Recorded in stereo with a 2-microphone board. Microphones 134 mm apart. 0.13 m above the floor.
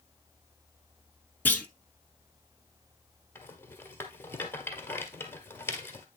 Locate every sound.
1.4 s a clunk: 15° left (ahead or behind), 0.8 m
3.4 s a rattle: 15° left (ahead or behind), 1.5 m